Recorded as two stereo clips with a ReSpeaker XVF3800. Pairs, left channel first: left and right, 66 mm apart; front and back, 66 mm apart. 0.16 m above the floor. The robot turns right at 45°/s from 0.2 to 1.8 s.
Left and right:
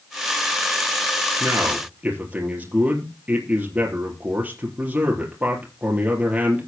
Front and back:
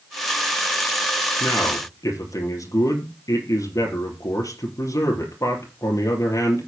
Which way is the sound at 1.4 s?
40° right.